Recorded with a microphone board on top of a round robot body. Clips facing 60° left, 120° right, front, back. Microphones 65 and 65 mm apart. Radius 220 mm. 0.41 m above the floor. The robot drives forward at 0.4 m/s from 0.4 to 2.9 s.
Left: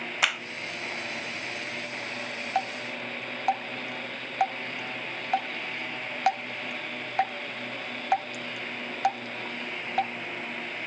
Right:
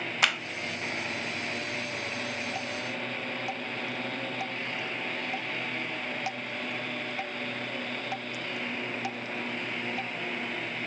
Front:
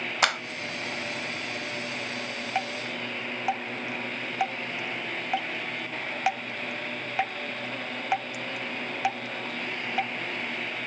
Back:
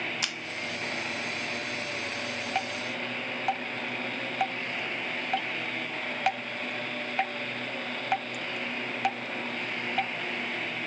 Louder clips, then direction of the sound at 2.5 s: Left 4 dB, front 2 dB; 85° left.